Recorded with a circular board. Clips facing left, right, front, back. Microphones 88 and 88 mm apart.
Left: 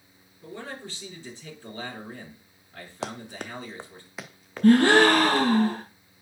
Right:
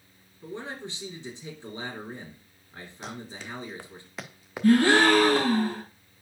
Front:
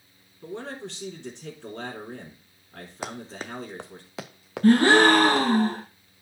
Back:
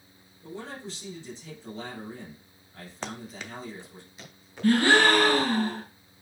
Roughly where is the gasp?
Ahead left.